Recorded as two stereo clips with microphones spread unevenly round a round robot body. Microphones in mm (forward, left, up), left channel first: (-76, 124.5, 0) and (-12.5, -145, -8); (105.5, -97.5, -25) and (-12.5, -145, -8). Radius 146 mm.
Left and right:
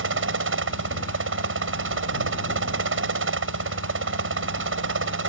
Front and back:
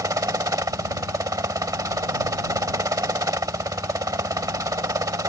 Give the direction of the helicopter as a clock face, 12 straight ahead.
3 o'clock.